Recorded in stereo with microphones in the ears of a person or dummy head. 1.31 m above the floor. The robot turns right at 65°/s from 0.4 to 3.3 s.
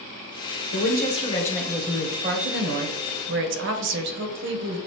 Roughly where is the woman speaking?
Behind left.